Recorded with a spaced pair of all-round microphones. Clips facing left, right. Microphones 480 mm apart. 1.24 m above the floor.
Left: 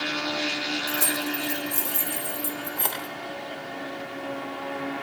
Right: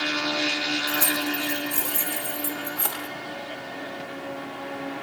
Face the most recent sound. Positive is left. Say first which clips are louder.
# right 2 dB
turn(degrees=-30)  # may be behind; listen again after turning